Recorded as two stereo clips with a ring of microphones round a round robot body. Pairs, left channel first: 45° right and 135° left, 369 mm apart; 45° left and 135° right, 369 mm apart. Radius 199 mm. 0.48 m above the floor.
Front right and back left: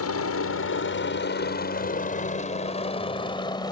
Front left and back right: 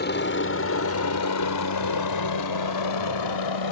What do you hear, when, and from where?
0.0 s a helicopter: 10° right; by 3.7 s 35° left